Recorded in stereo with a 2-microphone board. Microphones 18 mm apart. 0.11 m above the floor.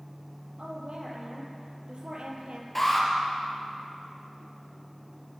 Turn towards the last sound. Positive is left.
turn(degrees=5)  # may be behind; listen again after turning